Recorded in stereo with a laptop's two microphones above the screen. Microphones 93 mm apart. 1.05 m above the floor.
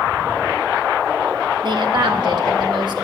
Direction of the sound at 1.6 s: 50° right (ahead or behind).